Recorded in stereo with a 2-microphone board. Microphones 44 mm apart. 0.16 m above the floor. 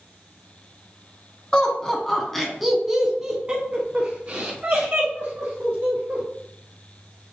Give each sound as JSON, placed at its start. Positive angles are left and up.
{"t": 1.5, "sound": "laughter", "side_deg": 20, "distance_m": 1.4}